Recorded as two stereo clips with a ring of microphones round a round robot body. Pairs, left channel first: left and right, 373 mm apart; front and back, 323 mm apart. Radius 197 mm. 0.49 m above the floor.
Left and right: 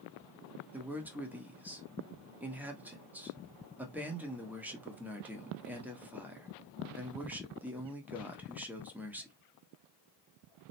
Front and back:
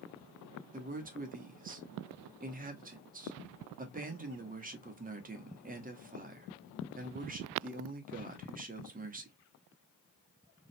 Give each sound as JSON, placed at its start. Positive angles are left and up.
{"t": 0.7, "sound": "a man speaking", "azimuth_deg": -170, "distance_m": 1.2}